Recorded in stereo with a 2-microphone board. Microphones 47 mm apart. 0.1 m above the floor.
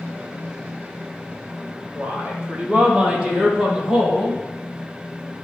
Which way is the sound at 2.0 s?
30° right (ahead or behind).